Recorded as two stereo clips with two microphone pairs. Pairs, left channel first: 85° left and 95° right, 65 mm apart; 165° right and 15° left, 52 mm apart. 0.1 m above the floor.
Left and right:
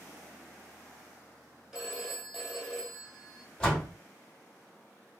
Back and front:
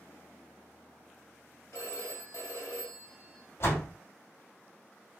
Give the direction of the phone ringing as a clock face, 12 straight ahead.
6 o'clock.